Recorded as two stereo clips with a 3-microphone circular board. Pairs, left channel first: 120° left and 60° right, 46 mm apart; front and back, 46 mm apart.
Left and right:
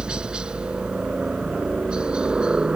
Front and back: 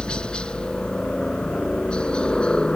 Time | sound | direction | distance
0.0 | a helicopter | 25° right | ?